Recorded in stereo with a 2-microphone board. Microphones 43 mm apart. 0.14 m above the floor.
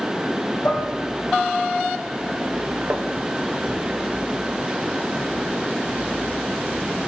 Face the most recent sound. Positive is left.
turn(degrees=-40)  # may be behind; listen again after turning